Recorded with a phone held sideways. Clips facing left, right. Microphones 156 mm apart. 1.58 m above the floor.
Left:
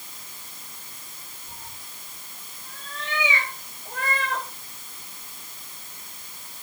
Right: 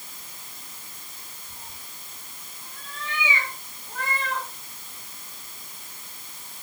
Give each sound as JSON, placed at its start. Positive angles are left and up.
{"t": 1.5, "sound": "a cat meowing", "side_deg": 80, "distance_m": 5.0}